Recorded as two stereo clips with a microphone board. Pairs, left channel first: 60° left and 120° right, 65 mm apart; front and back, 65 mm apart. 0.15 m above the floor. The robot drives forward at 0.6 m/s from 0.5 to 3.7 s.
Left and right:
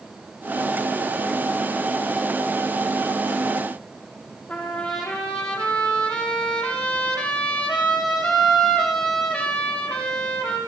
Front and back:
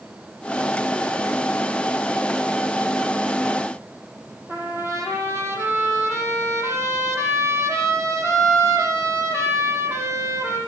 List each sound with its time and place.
4.5 s a trumpet: 140° left, 7 m